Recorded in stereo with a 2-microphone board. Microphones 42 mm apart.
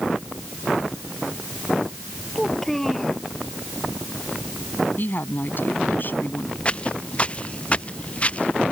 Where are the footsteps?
25° left (ahead or behind); by 8.7 s 30° left (ahead or behind).